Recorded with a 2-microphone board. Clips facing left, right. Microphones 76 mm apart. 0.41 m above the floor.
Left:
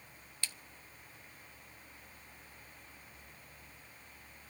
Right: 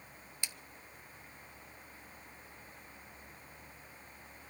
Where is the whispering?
I don't hear whispering.